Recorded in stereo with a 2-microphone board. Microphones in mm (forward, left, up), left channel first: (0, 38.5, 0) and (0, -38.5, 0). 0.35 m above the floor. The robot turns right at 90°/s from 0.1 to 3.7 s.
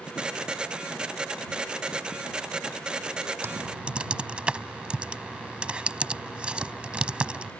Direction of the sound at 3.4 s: 35° right (ahead or behind).